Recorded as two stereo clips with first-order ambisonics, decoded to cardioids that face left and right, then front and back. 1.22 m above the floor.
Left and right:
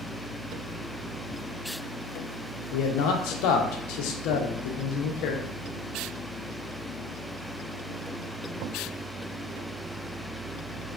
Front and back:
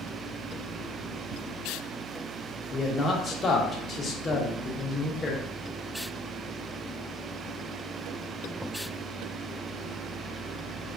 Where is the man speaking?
70° left, 0.5 m.